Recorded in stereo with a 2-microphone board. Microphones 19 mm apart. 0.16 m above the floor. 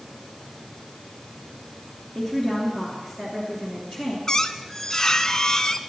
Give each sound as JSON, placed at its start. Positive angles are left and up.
{"t": 2.1, "sound": "a woman speaking", "side_deg": -20, "distance_m": 2.5}
{"t": 4.3, "sound": "a squeak", "side_deg": 30, "distance_m": 0.6}